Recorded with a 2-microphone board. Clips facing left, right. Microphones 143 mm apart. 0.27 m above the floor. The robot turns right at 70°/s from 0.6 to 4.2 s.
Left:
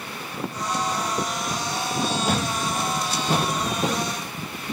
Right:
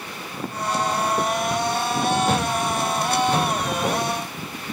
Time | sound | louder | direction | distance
2.2 | a thud | right 3 dB | centre (ahead or behind) | 2.5 m